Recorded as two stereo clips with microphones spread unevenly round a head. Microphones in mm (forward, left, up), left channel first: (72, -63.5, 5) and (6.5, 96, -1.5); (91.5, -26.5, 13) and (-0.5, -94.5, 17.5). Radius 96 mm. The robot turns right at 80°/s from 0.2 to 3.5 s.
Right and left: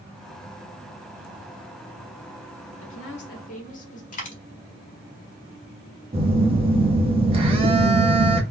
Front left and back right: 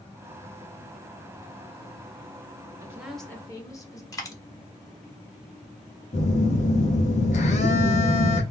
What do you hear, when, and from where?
2.8 s a woman speaking: 80° right, 2 m; by 4.0 s 25° right, 2 m
4.1 s a dropped coin: 25° right, 1.9 m
6.1 s a phone buzzing: 55° left, 1.4 m